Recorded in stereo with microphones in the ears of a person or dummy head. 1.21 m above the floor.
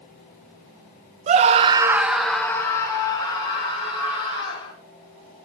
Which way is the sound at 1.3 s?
40° right (ahead or behind).